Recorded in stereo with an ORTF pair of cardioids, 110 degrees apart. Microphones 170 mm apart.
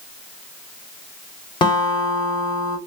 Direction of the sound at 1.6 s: 30° left.